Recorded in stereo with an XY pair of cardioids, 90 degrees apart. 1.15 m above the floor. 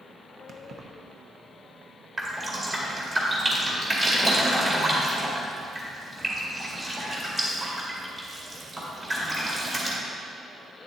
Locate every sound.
0.5 s keys jangling: 65° right, 0.8 m
2.2 s dripping: 30° right, 2 m